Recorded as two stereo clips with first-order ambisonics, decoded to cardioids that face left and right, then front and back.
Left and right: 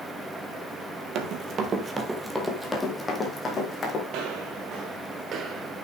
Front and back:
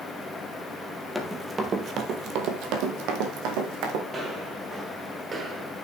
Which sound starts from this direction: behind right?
Footsteps, at 4.1 s.